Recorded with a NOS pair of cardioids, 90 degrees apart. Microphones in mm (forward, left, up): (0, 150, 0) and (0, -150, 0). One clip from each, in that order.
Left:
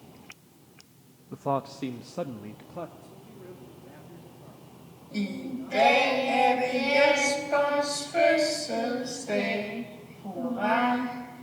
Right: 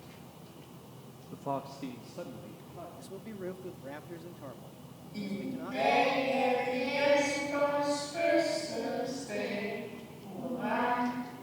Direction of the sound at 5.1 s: 70° left.